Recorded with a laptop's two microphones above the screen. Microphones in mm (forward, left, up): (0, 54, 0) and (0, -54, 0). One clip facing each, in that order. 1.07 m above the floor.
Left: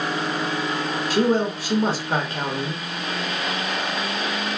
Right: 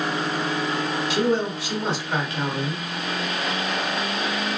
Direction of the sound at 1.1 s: 40° left (ahead or behind).